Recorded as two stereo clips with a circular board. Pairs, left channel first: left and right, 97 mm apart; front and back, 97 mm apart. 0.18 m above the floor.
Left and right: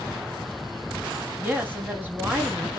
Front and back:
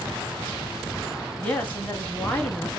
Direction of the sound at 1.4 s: 45° right.